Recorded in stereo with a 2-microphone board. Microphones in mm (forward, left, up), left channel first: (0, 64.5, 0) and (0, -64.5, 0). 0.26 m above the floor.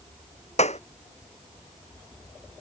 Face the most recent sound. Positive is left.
turn(degrees=60)  # may be behind; listen again after turning